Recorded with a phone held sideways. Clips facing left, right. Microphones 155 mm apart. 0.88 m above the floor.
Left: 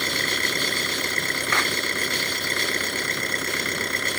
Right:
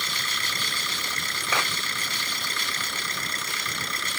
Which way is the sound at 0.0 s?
55° left (ahead or behind).